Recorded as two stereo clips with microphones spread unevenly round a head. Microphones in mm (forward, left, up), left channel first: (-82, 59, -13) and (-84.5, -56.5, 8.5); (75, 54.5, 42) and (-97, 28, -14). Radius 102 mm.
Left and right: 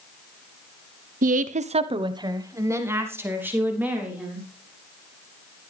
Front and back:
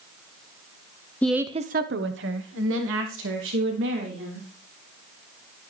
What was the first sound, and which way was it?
A woman speaking, 75° right.